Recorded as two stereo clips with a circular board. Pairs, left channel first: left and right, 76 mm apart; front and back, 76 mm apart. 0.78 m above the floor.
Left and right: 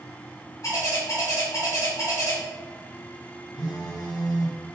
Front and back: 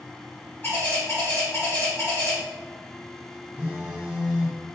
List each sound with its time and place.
0.6 s a bird: 60° left, 1.6 m
3.6 s a phone buzzing: 105° left, 1.0 m